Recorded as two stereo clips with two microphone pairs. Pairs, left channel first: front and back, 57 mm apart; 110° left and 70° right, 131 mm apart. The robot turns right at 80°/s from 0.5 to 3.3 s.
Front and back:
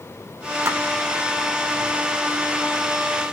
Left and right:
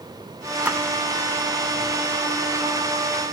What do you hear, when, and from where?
0.7 s a splash: 150° right, 1.0 m; by 0.8 s 140° right, 1.0 m